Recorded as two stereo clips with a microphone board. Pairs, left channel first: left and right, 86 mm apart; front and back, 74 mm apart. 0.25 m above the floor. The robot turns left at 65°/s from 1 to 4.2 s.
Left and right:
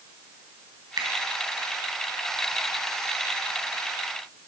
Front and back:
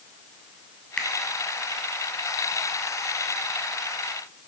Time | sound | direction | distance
1.0 | a finger snap | 75° right | 2.0 m